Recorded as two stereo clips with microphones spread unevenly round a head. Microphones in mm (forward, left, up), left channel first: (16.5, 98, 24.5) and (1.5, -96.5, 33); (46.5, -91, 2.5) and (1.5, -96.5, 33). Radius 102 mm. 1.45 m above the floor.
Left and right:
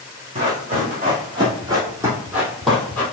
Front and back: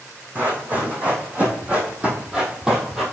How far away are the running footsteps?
About 3.5 m.